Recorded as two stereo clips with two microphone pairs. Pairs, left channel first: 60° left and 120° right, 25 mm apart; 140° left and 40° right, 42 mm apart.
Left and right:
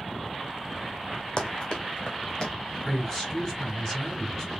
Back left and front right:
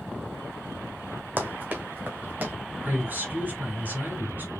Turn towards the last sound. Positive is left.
turn(degrees=-10)